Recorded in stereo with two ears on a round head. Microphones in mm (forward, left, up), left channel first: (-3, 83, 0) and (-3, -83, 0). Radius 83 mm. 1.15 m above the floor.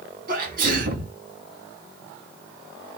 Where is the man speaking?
I don't hear a man speaking.